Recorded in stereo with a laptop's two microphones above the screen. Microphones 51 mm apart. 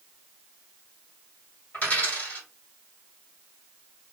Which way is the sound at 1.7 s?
35° left (ahead or behind).